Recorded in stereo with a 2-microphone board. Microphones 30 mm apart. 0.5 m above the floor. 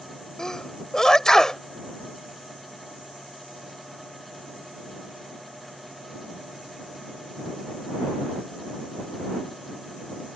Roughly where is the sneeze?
Centre.